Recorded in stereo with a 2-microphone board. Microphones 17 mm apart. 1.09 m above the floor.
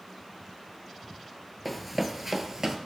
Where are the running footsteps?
Centre (ahead or behind), 1.1 m; by 2.8 s 30° right (ahead or behind), 1.2 m.